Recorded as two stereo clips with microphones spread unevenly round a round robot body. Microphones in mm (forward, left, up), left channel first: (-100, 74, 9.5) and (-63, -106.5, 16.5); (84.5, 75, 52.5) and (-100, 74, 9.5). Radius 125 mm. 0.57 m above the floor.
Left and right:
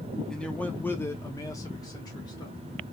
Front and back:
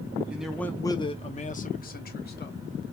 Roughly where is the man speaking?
Behind.